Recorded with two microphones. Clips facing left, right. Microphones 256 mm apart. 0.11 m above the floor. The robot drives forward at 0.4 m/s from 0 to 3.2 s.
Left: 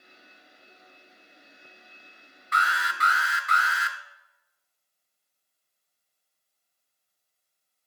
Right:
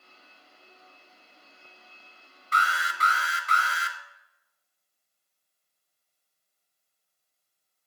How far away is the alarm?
About 0.9 m.